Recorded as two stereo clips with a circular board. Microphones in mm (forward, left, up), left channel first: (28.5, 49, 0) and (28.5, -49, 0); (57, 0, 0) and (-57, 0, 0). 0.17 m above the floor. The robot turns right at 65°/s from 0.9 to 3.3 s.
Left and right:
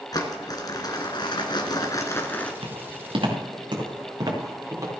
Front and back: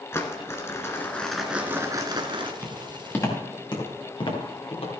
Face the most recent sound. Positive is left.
turn(degrees=-30)